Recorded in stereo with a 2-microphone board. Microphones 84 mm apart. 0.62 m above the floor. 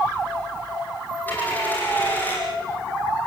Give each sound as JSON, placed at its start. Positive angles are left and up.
{"t": 1.3, "sound": "a dropped coin", "side_deg": 20, "distance_m": 8.5}